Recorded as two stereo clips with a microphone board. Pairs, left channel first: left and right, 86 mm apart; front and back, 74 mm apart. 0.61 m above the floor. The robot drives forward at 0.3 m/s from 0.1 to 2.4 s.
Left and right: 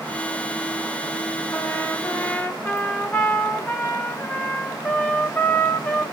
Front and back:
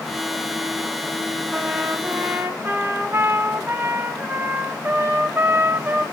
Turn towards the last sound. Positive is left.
turn(degrees=140)